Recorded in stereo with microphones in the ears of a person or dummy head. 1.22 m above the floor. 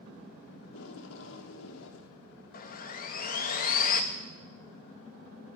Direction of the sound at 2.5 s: 50° left (ahead or behind).